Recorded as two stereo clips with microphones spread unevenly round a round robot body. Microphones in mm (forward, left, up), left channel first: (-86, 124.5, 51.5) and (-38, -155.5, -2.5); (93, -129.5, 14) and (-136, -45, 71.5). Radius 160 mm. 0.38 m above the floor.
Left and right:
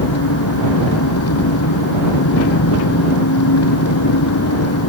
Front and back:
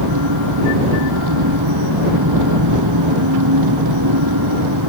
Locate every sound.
0.0 s an engine running: 135° left